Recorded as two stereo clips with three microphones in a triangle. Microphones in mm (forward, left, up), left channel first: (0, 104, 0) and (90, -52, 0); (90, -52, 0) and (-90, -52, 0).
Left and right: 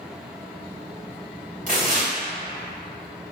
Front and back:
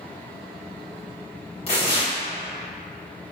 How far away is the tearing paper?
About 1.5 m.